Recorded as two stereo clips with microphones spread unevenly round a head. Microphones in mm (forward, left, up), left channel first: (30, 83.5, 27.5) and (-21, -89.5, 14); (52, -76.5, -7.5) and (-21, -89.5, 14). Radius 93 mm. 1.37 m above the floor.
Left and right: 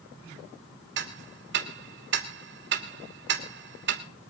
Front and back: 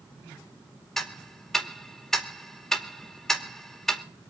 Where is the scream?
I don't hear a scream.